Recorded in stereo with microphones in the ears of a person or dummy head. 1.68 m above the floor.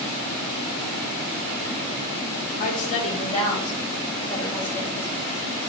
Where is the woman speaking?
50° left (ahead or behind), 2 m; by 5.1 s 10° left (ahead or behind), 4 m.